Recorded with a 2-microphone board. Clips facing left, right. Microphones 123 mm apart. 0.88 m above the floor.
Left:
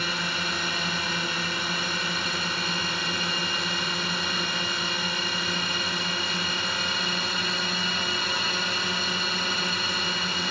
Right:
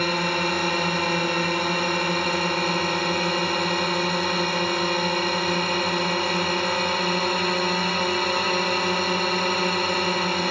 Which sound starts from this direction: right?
A drone, at 0.0 s.